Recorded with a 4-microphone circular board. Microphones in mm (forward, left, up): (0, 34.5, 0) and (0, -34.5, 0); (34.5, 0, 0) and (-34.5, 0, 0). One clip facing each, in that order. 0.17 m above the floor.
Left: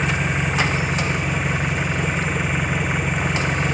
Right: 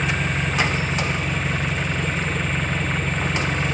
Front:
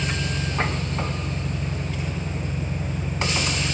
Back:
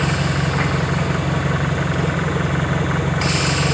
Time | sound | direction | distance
0.0 | an engine running | 170° left | ?